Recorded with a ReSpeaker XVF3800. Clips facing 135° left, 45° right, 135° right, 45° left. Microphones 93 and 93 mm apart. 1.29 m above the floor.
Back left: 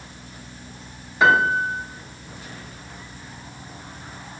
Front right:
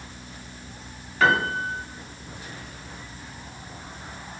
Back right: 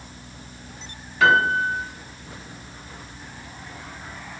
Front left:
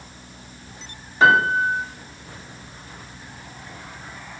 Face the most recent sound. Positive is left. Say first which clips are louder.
# back left 4 dB, front left 2 dB
turn(degrees=75)